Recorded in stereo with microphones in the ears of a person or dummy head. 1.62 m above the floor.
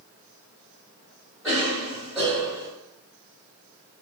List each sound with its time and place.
1.4 s a cough: 5° right (ahead or behind), 1.5 m